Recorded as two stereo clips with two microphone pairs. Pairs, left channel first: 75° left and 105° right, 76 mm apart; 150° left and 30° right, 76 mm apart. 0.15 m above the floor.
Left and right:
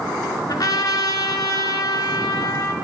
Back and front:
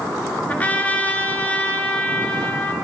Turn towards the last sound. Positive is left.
turn(degrees=85)